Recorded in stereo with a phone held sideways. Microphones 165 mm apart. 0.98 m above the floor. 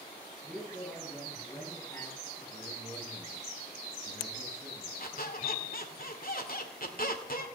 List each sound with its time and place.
0.4 s a man speaking: 15° left (ahead or behind), 8.5 m
2.5 s a man speaking: 5° right (ahead or behind), 9.5 m
5.0 s a squeak: 60° left (ahead or behind), 1.9 m